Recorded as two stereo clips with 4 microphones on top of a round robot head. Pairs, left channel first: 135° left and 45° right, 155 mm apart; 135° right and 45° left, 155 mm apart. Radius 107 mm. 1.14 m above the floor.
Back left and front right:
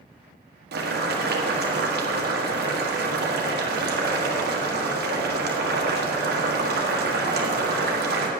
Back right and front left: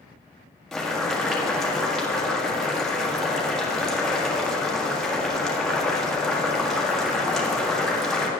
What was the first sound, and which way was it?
Boiling, 45° right.